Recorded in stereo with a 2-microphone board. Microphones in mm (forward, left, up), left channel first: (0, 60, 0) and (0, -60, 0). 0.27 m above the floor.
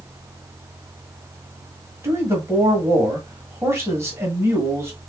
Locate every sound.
2.0 s a man speaking: 25° right (ahead or behind), 1.7 m